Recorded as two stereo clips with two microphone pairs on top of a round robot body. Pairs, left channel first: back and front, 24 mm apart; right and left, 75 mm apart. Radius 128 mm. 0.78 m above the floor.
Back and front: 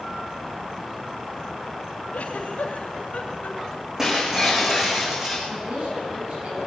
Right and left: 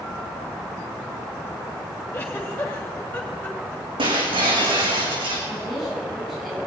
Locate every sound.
2.1 s a giggle: 160° right, 3 m
4.0 s breaking glass: 75° left, 4 m
5.5 s a woman speaking: straight ahead, 10 m